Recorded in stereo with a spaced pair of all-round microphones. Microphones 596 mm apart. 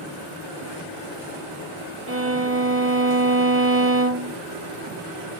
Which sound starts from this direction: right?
A violin, at 2.1 s.